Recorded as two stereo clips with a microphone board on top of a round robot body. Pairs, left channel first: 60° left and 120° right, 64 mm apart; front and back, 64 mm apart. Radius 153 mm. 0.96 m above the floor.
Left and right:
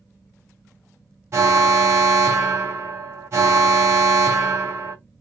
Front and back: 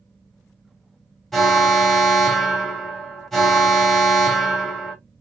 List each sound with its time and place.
1.3 s an alarm: 85° right, 1.1 m